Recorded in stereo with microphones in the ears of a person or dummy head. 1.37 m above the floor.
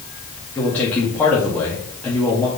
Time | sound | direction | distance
0.6 | a man speaking | 10° left (ahead or behind) | 1.8 m